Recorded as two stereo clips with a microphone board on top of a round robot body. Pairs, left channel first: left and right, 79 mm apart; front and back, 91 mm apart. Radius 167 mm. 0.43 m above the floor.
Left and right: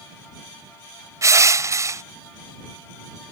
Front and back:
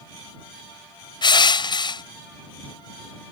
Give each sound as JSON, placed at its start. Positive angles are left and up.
{"t": 1.2, "sound": "crushing", "azimuth_deg": -40}